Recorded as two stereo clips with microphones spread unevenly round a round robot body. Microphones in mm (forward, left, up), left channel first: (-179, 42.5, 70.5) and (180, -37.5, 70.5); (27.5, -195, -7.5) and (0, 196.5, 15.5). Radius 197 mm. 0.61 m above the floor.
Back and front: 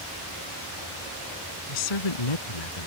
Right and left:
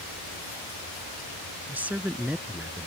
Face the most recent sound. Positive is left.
turn(degrees=-175)